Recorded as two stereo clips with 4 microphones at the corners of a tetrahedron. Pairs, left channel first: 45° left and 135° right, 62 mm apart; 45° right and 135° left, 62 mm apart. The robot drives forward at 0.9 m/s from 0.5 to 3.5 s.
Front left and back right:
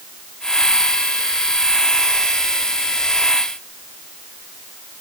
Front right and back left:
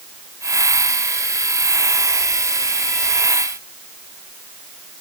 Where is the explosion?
I don't hear an explosion.